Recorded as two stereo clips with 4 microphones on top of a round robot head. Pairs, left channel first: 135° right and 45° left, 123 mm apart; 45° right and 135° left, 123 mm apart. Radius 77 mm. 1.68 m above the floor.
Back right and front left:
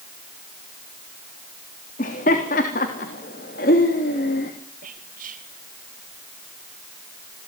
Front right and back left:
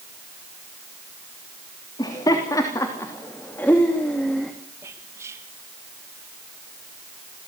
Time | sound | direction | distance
2.0 | laughter | 110° right | 3 m
4.8 | whispering | 60° left | 2 m